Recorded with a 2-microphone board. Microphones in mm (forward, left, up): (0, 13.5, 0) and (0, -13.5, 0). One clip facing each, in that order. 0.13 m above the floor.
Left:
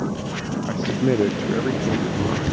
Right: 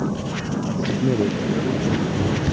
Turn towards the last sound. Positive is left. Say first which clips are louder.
# left 1 dB
turn(degrees=40)  # may be behind; listen again after turning